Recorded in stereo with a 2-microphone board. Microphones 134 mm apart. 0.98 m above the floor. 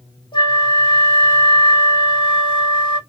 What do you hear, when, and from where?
0.3 s a flute: 35° left (ahead or behind), 0.8 m